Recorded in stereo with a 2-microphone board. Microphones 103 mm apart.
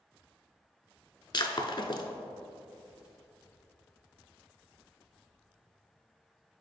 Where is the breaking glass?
45° left (ahead or behind), 0.5 m.